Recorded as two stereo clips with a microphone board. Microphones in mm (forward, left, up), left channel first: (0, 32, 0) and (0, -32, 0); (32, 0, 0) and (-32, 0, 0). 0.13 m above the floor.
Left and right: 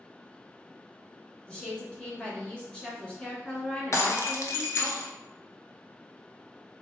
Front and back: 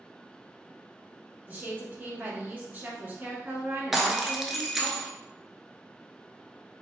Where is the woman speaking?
145° left, 1.6 m.